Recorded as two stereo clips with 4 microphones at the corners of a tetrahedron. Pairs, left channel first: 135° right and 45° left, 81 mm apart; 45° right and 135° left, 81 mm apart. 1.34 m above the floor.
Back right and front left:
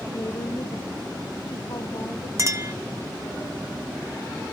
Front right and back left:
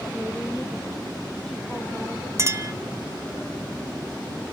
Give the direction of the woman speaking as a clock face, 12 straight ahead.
4 o'clock.